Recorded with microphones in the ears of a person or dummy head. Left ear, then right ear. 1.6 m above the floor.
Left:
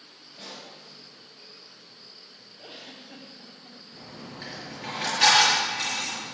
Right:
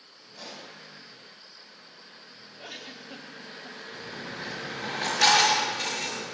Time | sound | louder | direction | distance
0.3 | a pop | even | 55° right (ahead or behind) | 5.5 m
2.6 | a giggle | right 3 dB | 50° right (ahead or behind) | 1.7 m
3.9 | a dropped coin | right 5 dB | 15° right (ahead or behind) | 5.5 m